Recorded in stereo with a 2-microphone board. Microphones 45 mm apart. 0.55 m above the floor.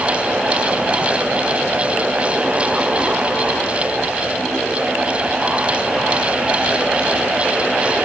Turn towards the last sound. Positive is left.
No sound to turn to.